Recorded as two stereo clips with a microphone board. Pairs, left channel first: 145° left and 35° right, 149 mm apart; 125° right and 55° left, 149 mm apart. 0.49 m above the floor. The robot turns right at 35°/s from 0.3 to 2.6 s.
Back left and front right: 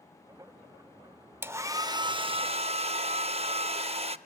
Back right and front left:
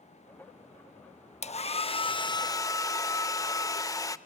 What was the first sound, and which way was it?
A hair dryer, 105° right.